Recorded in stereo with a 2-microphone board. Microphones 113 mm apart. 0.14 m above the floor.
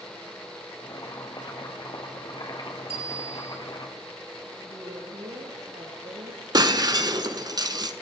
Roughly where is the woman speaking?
Right.